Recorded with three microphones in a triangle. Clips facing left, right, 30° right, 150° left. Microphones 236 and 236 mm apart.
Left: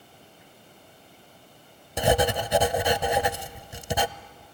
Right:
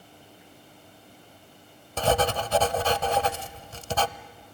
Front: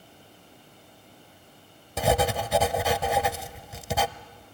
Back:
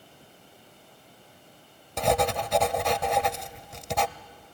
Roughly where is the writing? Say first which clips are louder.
Left 2 dB, front 1 dB; ahead left.